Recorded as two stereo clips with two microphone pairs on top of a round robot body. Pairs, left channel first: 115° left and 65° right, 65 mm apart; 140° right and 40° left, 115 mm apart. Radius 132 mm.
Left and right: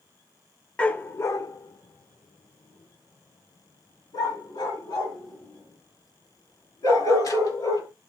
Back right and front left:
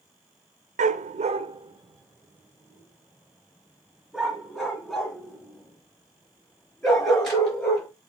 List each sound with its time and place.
0.8 s a dog barking: 40° left, 0.6 m; by 7.9 s 135° left, 4.5 m